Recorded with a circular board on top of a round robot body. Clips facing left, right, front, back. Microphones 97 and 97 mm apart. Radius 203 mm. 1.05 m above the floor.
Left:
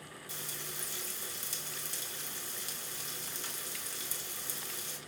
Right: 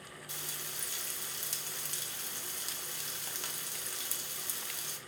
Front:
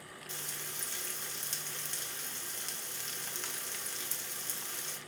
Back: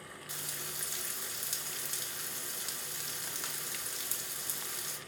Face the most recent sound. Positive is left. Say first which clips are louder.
# left 1 dB, even
turn(degrees=-100)